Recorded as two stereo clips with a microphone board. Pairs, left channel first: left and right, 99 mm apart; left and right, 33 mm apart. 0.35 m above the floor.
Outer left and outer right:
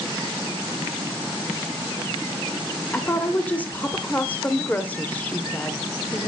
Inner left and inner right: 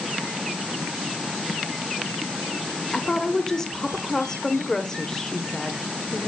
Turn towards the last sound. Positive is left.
turn(degrees=15)  # may be behind; listen again after turning